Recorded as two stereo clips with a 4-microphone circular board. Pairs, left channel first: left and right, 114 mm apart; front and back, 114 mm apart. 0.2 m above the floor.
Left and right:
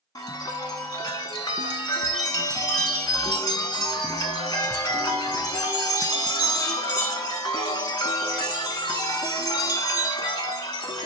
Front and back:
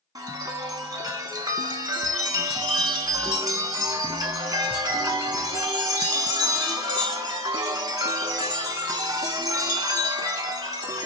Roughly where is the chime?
Behind left.